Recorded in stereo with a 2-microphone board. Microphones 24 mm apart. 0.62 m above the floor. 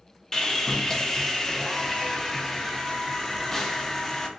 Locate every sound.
0.3 s sawing: 25° left (ahead or behind), 0.6 m